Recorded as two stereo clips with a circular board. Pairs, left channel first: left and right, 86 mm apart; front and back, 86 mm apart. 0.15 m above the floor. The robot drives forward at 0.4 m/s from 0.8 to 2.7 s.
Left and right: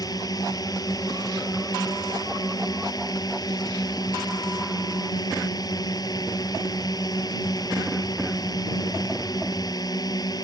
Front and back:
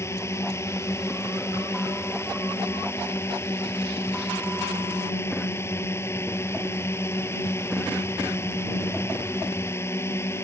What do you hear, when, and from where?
0.0 s a drone: 55° left